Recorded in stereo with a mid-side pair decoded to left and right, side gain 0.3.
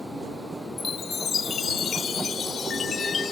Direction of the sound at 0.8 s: 65° left.